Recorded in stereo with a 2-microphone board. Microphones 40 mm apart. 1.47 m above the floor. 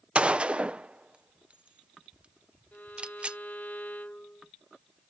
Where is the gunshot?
30° right (ahead or behind).